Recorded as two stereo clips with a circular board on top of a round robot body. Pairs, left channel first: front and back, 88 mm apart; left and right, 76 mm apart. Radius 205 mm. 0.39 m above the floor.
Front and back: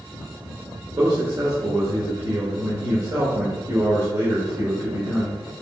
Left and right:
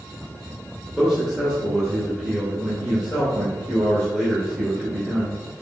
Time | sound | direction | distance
1.0 | a man speaking | 170° right | 1.8 m